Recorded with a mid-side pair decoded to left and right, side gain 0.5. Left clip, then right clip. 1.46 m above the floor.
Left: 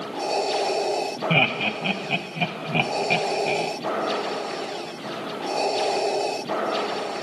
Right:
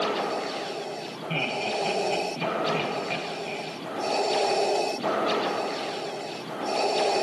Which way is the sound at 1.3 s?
50° left.